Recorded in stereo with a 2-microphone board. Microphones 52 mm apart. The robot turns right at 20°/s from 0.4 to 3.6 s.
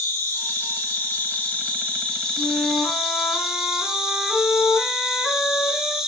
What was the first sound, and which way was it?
An insect, 125° left.